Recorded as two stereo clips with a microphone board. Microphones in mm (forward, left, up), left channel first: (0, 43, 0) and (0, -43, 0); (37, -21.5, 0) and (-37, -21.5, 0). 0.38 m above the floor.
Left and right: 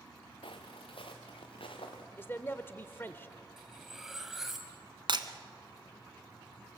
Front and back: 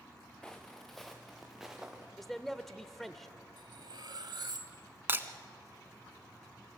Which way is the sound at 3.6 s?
175° right.